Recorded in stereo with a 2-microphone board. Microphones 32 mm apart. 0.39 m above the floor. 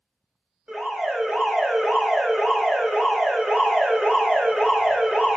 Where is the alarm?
30° right (ahead or behind), 3.5 m.